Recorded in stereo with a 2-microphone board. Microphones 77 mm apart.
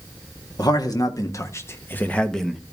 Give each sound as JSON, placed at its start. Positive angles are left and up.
{"t": 0.6, "sound": "a man speaking", "side_deg": 60, "distance_m": 1.8}